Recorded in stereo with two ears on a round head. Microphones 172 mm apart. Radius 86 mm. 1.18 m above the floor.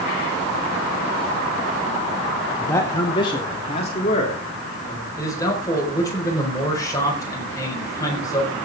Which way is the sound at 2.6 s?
10° left (ahead or behind).